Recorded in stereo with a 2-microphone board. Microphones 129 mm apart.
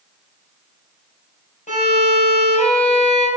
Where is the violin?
70° left (ahead or behind), 3 m.